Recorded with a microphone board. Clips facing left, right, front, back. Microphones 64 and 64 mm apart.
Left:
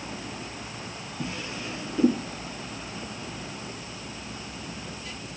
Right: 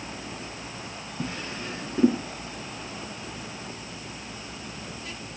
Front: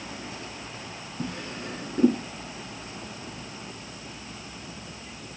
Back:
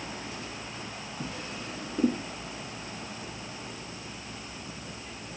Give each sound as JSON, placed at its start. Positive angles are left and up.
{"t": 1.2, "sound": "a drawer", "azimuth_deg": -35, "distance_m": 5.5}